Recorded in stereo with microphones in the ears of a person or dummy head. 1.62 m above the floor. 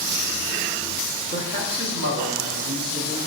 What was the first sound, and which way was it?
A man speaking, 25° right (ahead or behind).